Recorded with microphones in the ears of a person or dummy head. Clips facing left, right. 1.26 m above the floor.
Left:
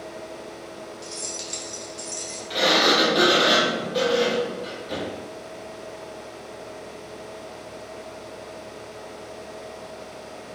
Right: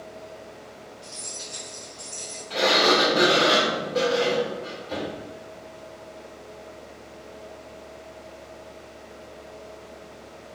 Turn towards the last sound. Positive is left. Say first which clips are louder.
# even
turn(degrees=20)  # may be behind; listen again after turning